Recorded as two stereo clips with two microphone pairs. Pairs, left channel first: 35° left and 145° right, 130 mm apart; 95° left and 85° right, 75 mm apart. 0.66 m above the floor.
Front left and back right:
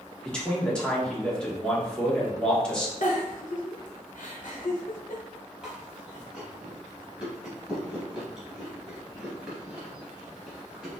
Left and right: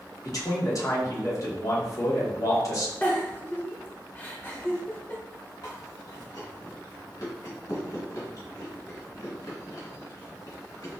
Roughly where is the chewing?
Behind left.